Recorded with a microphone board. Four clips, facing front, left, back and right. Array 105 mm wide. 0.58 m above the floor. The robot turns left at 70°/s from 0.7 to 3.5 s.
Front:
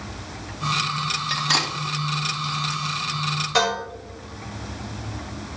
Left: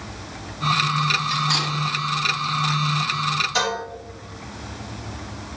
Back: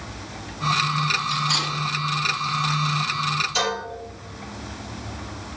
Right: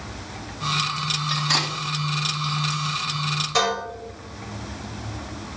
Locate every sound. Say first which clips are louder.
1.3 s cutlery clinking: left 2 dB, even; straight ahead, 0.7 m; by 1.7 s 30° right, 0.7 m
3.5 s dishes clattering: right 5 dB, front 7 dB; 20° right, 1.9 m